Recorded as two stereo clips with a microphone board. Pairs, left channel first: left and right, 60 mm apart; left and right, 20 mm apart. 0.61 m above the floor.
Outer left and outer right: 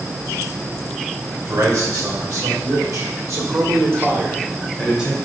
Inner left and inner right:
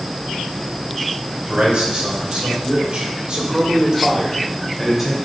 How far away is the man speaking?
About 3.5 m.